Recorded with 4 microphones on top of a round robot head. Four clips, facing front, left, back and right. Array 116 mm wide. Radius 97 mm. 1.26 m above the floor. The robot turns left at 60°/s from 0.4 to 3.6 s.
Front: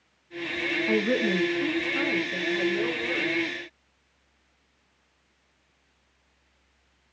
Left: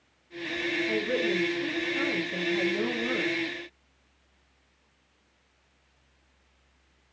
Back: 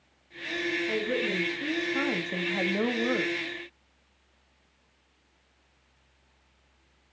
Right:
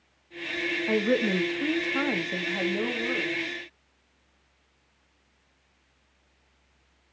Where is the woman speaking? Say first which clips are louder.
Right 5 dB, front 8 dB; 45° right, 1.7 m; by 3.3 s 170° left, 1.7 m.